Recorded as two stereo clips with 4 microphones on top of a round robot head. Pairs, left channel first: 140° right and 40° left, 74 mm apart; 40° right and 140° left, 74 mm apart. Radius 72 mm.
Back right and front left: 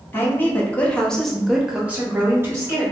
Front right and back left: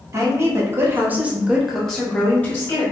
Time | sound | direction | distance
0.1 | a woman speaking | 170° left | 1.2 m